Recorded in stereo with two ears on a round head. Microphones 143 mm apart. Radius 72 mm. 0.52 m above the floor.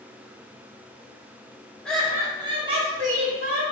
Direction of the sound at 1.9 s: 5° left (ahead or behind).